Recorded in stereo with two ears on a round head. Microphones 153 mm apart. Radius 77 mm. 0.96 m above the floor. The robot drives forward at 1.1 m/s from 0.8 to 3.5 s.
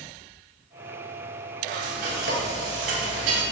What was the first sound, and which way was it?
Frying, 55° right (ahead or behind).